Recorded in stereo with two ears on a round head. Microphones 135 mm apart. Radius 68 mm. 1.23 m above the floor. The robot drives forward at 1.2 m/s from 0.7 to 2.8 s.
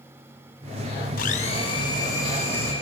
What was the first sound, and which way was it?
A blender, 65° left (ahead or behind).